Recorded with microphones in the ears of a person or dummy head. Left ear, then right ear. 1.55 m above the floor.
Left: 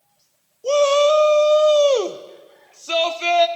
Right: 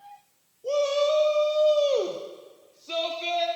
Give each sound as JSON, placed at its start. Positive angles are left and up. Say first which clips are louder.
{"t": 0.6, "sound": "a shout", "louder": "left 8 dB", "side_deg": 55, "distance_m": 0.6}